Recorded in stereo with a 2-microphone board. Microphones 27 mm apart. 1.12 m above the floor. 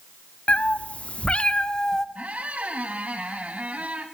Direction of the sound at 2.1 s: 60° right (ahead or behind).